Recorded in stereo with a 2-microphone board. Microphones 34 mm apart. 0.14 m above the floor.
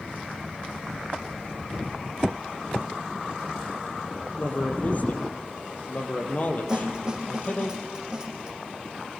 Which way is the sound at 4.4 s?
45° left (ahead or behind).